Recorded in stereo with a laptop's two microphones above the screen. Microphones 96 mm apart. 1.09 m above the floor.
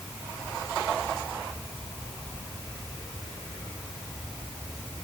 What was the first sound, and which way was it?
Only background noise.